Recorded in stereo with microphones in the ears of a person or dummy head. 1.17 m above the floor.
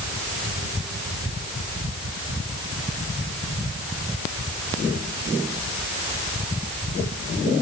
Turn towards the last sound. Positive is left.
No sound to turn to.